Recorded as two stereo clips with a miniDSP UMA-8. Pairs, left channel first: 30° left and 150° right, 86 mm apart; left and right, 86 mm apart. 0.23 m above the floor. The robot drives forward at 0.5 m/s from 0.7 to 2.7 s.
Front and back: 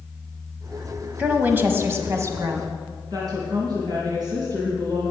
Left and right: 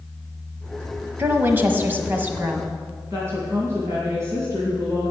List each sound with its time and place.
1.2 s a woman speaking: 105° right, 1.2 m; by 2.7 s 150° right, 1.5 m
3.1 s a woman speaking: 140° right, 2 m